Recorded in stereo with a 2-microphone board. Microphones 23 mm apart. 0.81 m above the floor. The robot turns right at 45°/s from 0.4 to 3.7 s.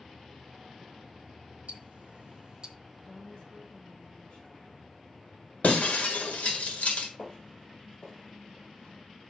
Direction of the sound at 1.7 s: 60° right (ahead or behind).